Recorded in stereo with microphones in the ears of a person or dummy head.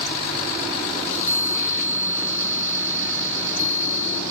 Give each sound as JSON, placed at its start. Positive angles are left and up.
{"t": 1.0, "sound": "a chime", "side_deg": 10, "distance_m": 3.0}